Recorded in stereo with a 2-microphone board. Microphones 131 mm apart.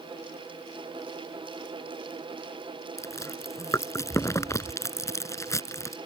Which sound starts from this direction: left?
Chewing, at 3.0 s.